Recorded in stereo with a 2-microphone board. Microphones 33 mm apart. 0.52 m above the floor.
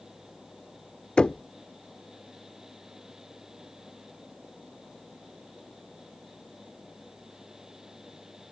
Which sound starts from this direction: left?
Knocking, at 1.2 s.